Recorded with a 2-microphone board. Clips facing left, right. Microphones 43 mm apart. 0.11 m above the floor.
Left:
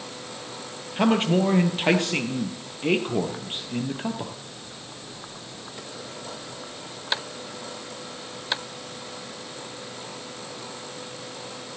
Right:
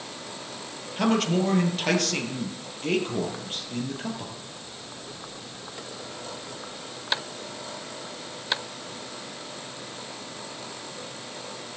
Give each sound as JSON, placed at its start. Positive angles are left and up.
{"t": 1.0, "sound": "a man speaking", "side_deg": 25, "distance_m": 2.5}